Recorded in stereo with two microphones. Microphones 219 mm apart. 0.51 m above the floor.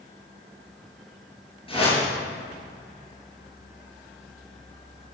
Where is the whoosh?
25° left (ahead or behind), 5 m.